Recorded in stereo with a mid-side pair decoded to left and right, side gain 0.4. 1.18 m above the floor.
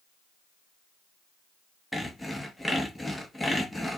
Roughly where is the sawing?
Ahead.